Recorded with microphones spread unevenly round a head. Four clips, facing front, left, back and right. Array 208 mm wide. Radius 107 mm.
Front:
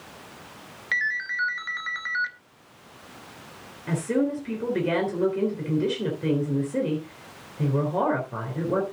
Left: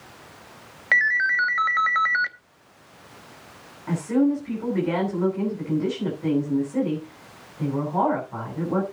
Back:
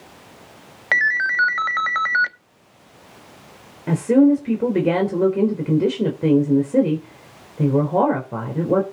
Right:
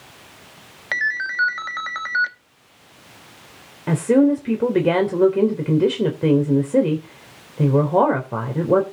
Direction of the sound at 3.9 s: 125° right.